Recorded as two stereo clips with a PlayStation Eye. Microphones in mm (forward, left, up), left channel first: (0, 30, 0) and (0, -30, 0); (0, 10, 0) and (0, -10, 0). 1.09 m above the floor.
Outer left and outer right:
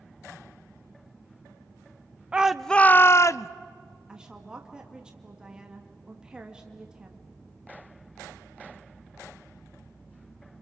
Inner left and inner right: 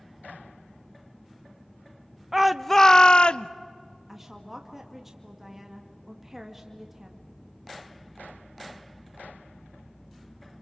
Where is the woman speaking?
10° right (ahead or behind), 2 m.